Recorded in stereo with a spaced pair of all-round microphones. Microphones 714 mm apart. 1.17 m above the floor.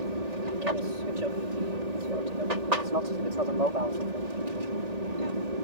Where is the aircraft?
65° right (ahead or behind).